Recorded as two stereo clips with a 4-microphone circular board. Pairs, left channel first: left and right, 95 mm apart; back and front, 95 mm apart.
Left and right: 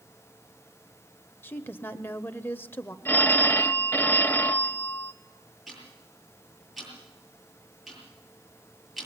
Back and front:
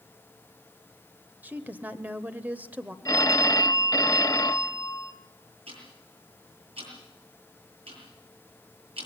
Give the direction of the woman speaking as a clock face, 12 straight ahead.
10 o'clock.